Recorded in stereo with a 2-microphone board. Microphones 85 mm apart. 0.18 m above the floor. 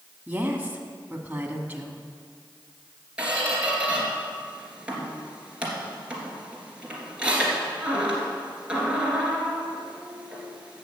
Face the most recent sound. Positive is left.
turn(degrees=-15)  # may be behind; listen again after turning